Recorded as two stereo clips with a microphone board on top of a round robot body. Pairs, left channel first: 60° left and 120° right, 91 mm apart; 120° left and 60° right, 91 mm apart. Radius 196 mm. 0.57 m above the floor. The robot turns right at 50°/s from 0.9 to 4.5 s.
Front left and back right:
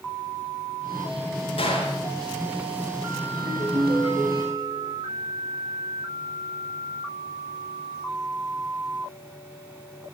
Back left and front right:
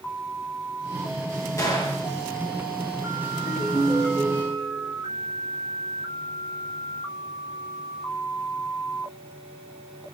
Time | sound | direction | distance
1.6 | a gunshot | 65° left | 4 m
3.3 | a ringtone | straight behind | 7.5 m